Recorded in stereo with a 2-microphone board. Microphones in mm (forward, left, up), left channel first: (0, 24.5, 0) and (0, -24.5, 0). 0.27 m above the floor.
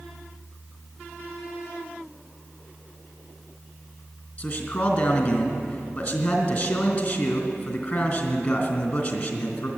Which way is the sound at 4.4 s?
25° left (ahead or behind).